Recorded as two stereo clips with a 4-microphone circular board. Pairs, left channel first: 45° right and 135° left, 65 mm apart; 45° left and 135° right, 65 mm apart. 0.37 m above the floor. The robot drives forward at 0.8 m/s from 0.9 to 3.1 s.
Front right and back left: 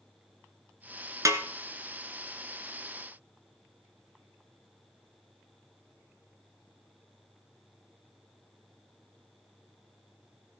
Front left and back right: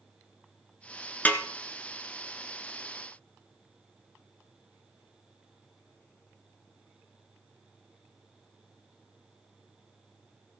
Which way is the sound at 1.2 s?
105° left.